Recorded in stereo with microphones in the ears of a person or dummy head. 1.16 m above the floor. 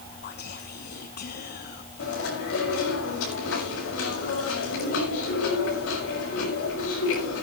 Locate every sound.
0.2 s whispering: 45° left (ahead or behind), 0.9 m
2.0 s chewing: 75° left (ahead or behind), 6 m